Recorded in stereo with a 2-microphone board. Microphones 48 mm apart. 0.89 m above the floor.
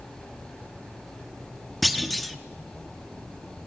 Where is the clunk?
Centre (ahead or behind), 1.2 m.